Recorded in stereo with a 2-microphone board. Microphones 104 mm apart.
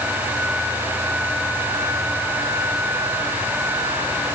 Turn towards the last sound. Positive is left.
No sound to turn to.